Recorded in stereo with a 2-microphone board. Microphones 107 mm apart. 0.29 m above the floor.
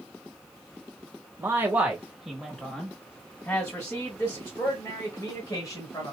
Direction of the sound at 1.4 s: 25° right (ahead or behind).